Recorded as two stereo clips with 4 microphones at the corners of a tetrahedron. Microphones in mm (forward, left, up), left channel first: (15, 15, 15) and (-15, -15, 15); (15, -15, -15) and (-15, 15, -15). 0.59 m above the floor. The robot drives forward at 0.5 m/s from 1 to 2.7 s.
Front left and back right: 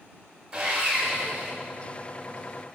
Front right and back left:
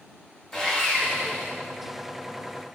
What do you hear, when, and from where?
0.5 s sawing: 110° right, 0.7 m; by 1.5 s 145° right, 0.8 m